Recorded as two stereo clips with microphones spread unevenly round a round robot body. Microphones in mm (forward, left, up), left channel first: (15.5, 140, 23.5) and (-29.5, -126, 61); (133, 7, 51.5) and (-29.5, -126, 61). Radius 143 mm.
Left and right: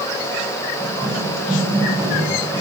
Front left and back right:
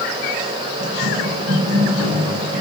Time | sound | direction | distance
0.8 | running footsteps | 175° left | 8 m